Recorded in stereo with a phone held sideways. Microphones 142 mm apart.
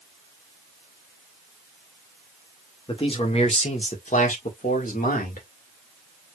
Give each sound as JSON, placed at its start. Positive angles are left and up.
{"t": 2.9, "sound": "a man speaking", "side_deg": 35, "distance_m": 2.0}